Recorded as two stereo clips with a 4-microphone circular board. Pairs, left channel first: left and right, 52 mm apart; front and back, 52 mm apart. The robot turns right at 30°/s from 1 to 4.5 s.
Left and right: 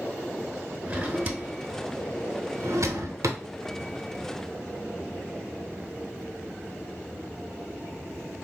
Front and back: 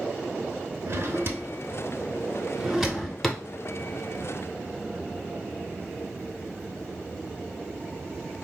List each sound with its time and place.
0.9 s a drawer: 155° right, 0.7 m; by 3.4 s 80° right, 0.7 m